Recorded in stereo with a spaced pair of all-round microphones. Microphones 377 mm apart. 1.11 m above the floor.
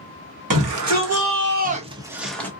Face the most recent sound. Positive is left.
turn(degrees=5)  # may be behind; listen again after turning